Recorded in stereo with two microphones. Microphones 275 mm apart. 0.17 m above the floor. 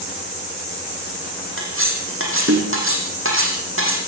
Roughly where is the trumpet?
No trumpet in this recording.